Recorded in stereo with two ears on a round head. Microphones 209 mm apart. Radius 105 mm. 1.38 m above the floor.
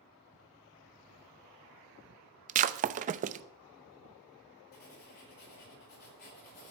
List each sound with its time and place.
2.5 s breaking glass: 30° right (ahead or behind), 0.7 m
4.7 s writing: 45° left (ahead or behind), 5.5 m